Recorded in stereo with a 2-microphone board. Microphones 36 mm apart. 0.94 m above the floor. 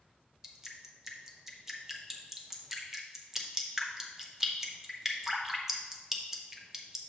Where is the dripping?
10° right (ahead or behind), 0.8 m.